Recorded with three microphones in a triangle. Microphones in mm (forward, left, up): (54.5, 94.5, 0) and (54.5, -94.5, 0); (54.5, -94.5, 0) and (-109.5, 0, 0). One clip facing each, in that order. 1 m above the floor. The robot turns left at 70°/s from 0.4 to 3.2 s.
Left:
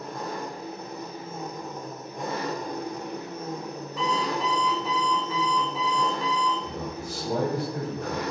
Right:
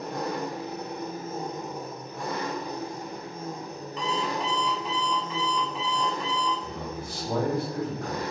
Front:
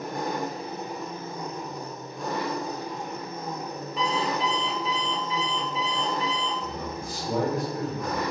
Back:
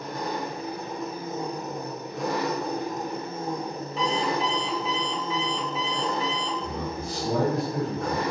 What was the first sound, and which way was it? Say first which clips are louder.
An engine running: right 3 dB, front 1 dB; 75° right.